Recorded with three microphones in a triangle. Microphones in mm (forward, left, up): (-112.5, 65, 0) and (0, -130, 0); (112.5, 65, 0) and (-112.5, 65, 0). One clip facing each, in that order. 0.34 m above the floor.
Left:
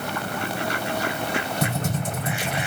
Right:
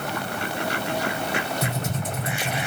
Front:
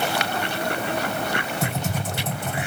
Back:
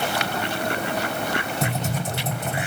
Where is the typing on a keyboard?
135° left, 2 m.